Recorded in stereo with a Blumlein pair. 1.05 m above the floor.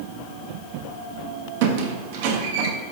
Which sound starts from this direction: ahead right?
A squeak, at 1.6 s.